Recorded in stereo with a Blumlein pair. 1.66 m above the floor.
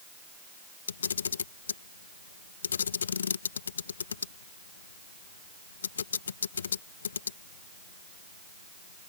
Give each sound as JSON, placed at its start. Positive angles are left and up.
{"t": 0.9, "sound": "a camera shutter", "azimuth_deg": 70}